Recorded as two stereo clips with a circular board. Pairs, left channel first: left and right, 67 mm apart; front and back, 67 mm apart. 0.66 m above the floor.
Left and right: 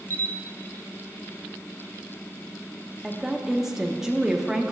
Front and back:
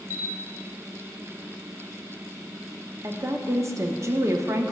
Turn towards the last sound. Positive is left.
turn(degrees=-170)